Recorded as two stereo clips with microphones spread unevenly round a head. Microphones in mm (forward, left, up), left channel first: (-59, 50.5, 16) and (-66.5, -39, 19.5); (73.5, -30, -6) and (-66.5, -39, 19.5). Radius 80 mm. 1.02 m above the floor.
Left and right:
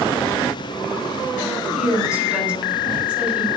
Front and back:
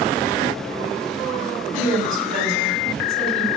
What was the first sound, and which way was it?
A woman speaking, 170° right.